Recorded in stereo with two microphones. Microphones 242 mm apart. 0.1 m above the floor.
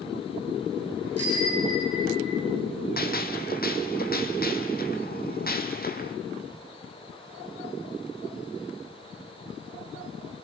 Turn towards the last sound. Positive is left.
turn(degrees=40)  # may be behind; listen again after turning